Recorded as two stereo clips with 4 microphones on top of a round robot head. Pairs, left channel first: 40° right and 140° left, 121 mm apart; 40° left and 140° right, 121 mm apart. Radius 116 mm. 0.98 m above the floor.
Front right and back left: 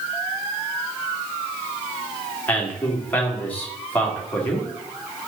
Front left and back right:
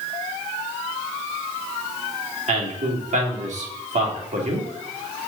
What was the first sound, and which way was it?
A man speaking, 115° right.